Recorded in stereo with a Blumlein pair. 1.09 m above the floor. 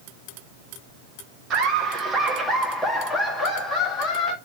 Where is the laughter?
30° right, 1.4 m; by 4.3 s 25° left, 3 m.